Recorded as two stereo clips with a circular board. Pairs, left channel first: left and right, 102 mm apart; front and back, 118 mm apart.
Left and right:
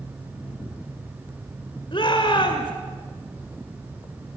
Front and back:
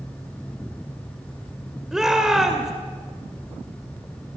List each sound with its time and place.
1.9 s a shout: 95° left, 2.0 m